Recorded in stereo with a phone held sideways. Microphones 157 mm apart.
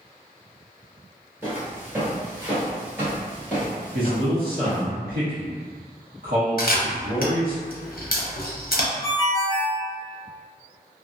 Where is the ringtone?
35° left (ahead or behind), 0.9 m.